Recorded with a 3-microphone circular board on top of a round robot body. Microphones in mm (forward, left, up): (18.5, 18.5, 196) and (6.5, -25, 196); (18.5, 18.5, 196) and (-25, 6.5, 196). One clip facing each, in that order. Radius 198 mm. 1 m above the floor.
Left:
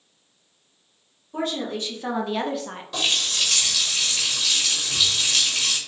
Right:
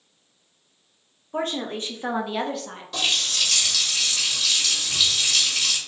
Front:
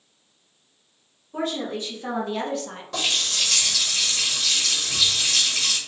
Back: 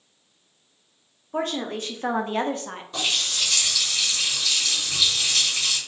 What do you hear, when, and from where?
1.3 s a woman speaking: 140° right, 1.0 m; by 2.8 s 140° left, 0.7 m
2.9 s a running tap: 10° right, 1.2 m